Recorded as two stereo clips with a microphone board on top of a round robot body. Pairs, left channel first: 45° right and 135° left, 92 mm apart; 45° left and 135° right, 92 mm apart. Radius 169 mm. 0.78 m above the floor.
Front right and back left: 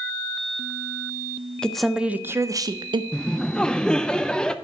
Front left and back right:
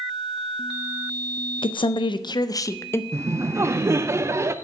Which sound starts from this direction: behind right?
Laughter, at 3.1 s.